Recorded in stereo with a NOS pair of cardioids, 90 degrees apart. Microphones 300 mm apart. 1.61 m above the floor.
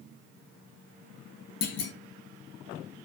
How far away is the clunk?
About 0.6 m.